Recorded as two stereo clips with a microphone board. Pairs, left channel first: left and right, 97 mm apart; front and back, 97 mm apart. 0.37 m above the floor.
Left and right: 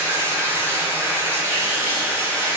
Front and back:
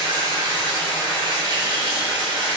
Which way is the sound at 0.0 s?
150° right.